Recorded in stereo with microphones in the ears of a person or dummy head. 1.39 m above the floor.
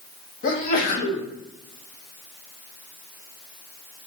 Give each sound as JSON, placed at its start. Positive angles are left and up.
{"t": 0.4, "sound": "a sneeze", "side_deg": 45, "distance_m": 0.7}